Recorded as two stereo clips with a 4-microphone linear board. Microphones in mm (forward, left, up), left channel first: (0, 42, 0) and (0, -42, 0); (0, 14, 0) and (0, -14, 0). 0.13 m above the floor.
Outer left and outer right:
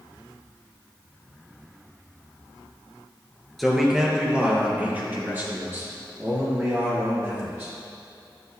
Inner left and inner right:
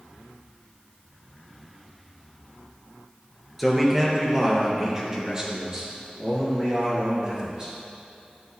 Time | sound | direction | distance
3.6 | a man speaking | centre (ahead or behind) | 2.5 m